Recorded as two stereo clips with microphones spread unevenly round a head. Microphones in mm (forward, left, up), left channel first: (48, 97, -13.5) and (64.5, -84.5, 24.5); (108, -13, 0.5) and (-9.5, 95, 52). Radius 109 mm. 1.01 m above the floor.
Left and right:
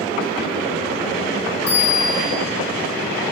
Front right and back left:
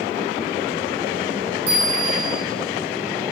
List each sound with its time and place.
1.7 s a bell: 135° left, 6 m